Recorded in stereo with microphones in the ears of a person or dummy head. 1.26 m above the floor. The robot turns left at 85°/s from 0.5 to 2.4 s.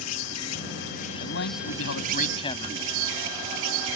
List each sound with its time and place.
0.0 s an insect: 85° left; by 4.0 s 75° right
1.2 s a man speaking: 130° left; by 2.8 s 30° left